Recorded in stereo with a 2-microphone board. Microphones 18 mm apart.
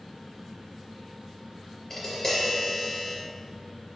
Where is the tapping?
25° left (ahead or behind), 3 m.